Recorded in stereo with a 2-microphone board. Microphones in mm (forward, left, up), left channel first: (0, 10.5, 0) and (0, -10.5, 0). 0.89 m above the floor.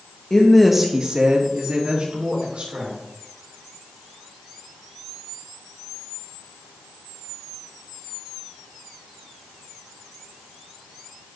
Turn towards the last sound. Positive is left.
turn(degrees=-80)